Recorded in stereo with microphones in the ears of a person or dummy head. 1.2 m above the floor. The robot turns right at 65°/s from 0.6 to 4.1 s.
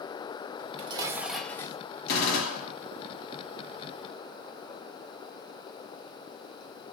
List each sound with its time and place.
0.6 s dishes clattering: 50° right, 1.0 m; by 1.8 s 25° left, 1.0 m
2.1 s a gunshot: 60° left, 2.5 m; by 2.8 s 105° left, 2.5 m